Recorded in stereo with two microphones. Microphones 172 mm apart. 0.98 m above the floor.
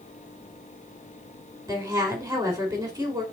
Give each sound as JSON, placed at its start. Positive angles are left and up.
{"t": 1.7, "sound": "a woman speaking", "side_deg": -20, "distance_m": 3.5}